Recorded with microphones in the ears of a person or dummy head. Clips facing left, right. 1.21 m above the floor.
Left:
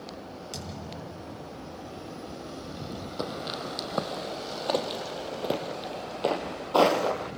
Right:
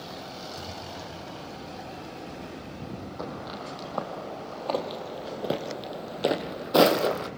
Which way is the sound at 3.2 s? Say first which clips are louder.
Left 4 dB; 40° left (ahead or behind).